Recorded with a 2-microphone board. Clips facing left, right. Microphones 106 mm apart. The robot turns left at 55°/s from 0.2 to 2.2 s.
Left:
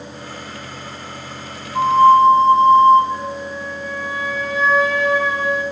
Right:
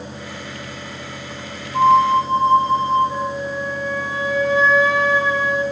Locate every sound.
1.7 s a flute: 45° right (ahead or behind), 3.5 m; by 3.0 s 20° right (ahead or behind), 3.5 m
3.1 s a flute: 25° right (ahead or behind), 2.5 m